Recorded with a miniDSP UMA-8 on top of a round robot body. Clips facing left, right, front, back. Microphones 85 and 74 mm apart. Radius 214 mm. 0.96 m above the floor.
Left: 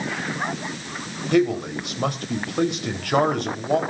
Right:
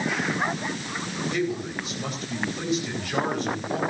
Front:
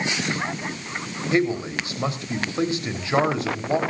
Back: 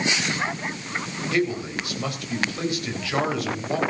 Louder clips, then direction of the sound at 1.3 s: Left 10 dB, front 3 dB; 65° left.